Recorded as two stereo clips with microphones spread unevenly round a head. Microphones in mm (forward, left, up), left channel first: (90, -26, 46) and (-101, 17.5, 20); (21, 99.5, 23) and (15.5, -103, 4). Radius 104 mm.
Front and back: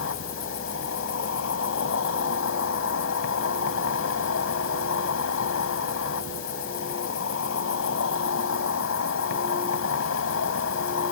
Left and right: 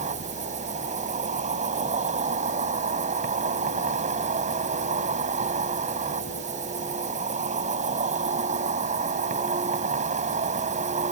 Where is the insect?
35° right.